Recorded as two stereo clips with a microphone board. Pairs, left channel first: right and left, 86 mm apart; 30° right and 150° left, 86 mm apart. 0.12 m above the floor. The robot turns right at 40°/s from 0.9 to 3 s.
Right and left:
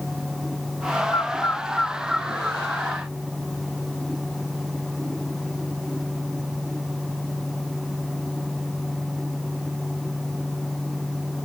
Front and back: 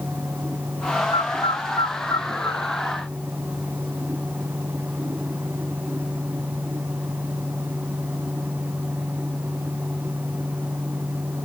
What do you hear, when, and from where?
1.1 s a bird: 35° right; by 2.6 s 25° left